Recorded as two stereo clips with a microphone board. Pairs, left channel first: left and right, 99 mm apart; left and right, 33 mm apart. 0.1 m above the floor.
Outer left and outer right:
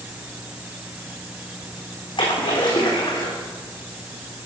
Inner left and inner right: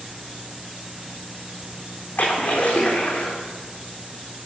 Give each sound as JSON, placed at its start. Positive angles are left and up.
{"t": 2.2, "sound": "a splash", "side_deg": 55, "distance_m": 3.5}